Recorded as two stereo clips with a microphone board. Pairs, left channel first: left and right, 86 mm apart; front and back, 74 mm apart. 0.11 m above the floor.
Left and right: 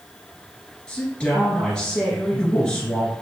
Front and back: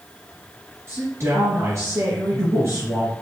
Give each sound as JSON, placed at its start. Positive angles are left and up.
{"t": 0.9, "sound": "a woman speaking", "azimuth_deg": 165, "distance_m": 2.0}